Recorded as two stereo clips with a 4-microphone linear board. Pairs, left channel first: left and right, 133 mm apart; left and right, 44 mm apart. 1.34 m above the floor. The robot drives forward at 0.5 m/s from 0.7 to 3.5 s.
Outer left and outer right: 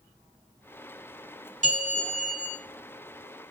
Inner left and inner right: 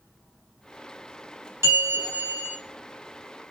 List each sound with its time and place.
1.6 s a bell: 75° right (ahead or behind), 4.5 m; by 2.6 s 70° right (ahead or behind), 5 m